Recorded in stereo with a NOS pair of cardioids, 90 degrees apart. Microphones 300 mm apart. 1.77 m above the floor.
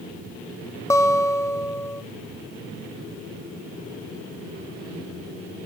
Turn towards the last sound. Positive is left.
turn(degrees=10)